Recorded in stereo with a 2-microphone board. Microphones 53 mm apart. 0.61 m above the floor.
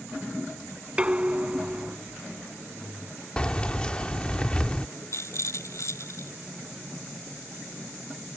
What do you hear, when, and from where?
1.0 s dishes clattering: 20° right (ahead or behind)
3.4 s keys jangling: 20° left (ahead or behind)
5.1 s a rattle: 70° left (ahead or behind)